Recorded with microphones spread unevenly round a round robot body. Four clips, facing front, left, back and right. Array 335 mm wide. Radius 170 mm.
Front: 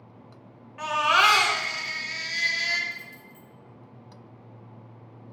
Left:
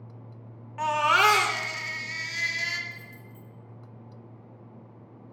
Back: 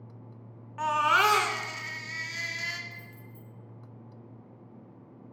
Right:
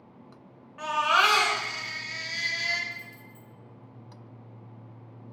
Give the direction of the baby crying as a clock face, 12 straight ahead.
8 o'clock.